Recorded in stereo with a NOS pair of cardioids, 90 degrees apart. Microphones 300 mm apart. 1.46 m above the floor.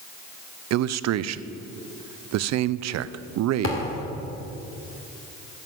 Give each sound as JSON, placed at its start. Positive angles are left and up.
{"t": 0.7, "sound": "a man speaking", "azimuth_deg": -60, "distance_m": 0.5}
{"t": 3.6, "sound": "a thud", "azimuth_deg": 45, "distance_m": 2.5}